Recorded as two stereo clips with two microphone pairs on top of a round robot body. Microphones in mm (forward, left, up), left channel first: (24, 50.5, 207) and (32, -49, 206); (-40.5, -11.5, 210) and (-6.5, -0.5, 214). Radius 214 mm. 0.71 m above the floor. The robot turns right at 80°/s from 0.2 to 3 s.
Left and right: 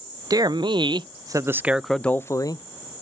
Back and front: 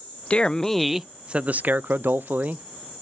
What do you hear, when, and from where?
0.3 s a man speaking: 125° right, 0.5 m; by 2.6 s 65° left, 0.5 m